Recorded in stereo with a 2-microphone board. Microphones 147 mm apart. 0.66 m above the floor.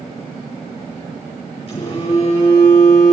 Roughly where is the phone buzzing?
Left.